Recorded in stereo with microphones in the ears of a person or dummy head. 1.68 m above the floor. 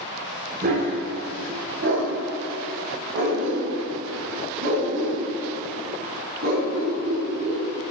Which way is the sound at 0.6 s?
45° right (ahead or behind).